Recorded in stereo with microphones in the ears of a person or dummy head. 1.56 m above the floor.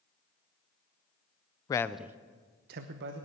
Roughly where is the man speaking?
Left.